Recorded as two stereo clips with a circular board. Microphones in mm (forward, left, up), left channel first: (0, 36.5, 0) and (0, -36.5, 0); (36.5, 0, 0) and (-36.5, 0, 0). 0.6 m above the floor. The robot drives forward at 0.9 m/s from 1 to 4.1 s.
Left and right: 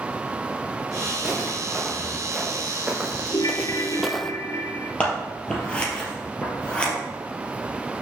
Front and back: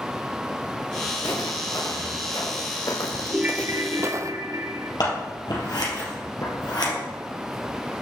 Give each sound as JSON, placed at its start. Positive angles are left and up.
{"t": 1.1, "sound": "footsteps", "azimuth_deg": -10, "distance_m": 4.0}
{"t": 3.3, "sound": "a ringtone", "azimuth_deg": 105, "distance_m": 0.7}
{"t": 5.0, "sound": "scissors", "azimuth_deg": 15, "distance_m": 3.5}